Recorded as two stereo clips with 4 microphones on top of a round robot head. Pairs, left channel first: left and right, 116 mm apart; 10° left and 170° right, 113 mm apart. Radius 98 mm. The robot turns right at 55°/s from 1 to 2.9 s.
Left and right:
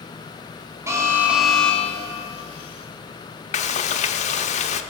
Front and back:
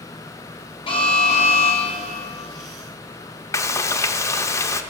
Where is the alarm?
30° right, 2.5 m; by 2.2 s 40° left, 2.5 m.